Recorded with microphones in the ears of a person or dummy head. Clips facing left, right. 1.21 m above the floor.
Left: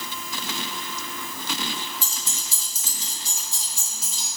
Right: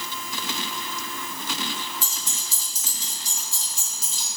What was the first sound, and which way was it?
Keys jangling, 65° left (ahead or behind).